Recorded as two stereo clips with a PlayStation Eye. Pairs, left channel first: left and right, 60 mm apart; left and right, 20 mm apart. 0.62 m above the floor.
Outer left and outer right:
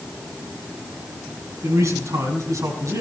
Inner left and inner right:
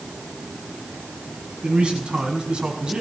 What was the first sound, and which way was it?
A man speaking, 70° right (ahead or behind).